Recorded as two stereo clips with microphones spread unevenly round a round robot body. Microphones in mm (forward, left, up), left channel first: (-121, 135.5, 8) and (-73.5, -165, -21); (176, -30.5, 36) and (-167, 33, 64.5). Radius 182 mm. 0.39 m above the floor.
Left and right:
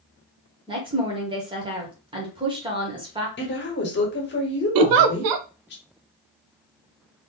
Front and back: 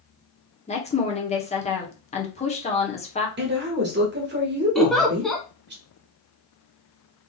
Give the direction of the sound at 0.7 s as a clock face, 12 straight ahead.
1 o'clock.